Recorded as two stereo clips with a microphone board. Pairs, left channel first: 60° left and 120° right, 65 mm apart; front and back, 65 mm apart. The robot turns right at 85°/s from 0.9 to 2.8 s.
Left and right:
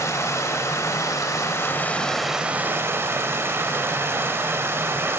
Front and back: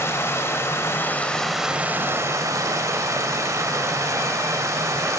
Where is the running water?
35° left, 1.0 m; by 5.2 s 160° right, 1.0 m.